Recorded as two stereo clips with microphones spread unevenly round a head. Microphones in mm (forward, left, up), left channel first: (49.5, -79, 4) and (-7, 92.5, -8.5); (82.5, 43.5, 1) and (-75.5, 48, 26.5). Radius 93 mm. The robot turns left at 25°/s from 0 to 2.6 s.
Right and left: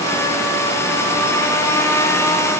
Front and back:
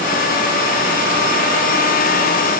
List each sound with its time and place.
Only background noise.